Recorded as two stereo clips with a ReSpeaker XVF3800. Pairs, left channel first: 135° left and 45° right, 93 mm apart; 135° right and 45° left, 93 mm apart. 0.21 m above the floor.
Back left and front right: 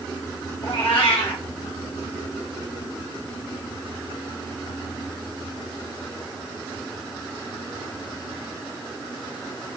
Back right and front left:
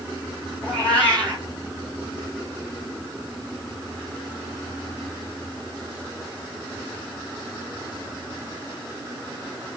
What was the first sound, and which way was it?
A cat meowing, 155° left.